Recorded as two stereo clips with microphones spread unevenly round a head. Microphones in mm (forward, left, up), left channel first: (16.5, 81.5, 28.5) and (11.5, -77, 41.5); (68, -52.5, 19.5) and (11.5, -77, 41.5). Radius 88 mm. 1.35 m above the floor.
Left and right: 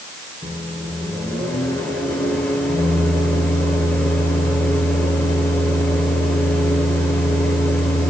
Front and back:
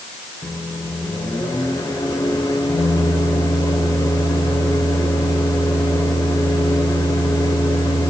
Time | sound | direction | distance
0.4 | a microwave | 5° left | 0.9 m